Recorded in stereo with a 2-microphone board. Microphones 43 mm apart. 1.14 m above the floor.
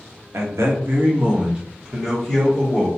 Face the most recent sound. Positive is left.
turn(degrees=5)  # may be behind; listen again after turning